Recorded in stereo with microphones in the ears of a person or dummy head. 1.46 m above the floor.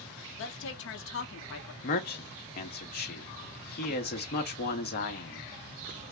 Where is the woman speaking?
65° left (ahead or behind), 0.8 m.